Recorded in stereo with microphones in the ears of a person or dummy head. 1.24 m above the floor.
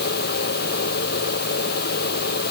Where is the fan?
55° left (ahead or behind).